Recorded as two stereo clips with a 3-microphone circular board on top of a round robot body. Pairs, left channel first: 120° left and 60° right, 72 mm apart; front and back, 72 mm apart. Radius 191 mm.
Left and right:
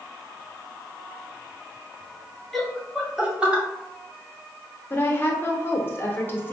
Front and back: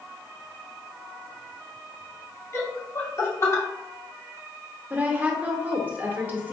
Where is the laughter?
30° left, 1.6 m; by 3.6 s straight ahead, 1.3 m.